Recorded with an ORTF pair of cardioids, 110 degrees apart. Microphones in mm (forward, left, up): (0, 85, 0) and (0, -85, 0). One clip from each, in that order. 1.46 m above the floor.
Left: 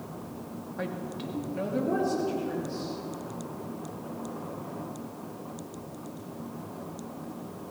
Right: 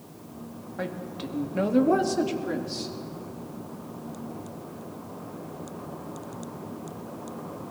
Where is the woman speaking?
10° right, 2 m; by 2.9 s 80° right, 3 m.